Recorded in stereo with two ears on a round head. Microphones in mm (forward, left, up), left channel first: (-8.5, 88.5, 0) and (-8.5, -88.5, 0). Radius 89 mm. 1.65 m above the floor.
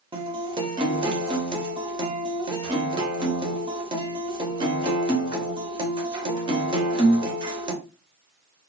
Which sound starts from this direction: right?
A guitar, at 0.1 s.